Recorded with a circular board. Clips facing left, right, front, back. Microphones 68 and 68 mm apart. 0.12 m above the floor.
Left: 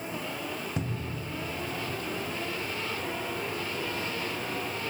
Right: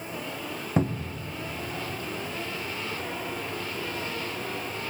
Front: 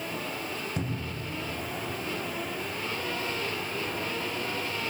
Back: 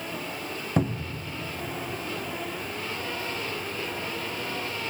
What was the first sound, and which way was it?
A cupboard door, 135° right.